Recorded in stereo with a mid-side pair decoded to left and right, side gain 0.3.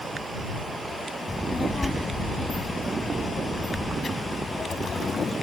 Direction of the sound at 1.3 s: 40° left.